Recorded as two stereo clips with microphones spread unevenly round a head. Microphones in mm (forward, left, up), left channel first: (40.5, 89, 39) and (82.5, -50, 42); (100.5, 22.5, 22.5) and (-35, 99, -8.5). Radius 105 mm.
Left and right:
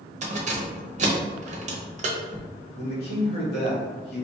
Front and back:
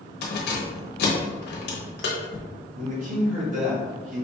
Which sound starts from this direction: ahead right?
Keys jangling, at 0.2 s.